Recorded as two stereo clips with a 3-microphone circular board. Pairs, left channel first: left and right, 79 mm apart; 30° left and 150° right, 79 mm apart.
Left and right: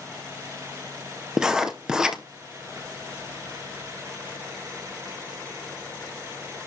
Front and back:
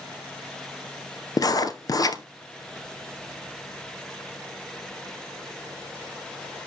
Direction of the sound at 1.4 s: 5° right.